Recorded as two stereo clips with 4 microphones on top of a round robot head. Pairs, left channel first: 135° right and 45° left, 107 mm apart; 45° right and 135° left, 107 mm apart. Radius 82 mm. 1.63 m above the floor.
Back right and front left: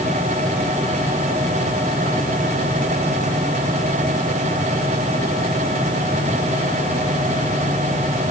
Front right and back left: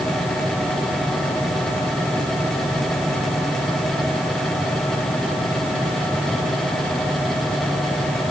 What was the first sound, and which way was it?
Only background noise.